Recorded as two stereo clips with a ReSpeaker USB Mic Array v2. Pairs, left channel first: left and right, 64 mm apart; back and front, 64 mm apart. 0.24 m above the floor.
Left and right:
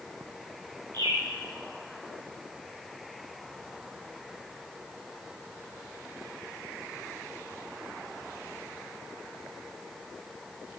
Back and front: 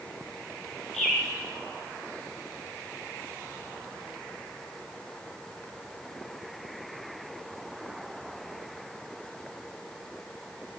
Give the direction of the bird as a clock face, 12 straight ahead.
3 o'clock.